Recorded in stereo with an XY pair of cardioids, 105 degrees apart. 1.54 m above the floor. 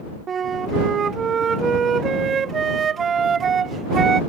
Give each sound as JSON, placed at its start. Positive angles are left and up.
{"t": 0.3, "sound": "a flute", "azimuth_deg": -45}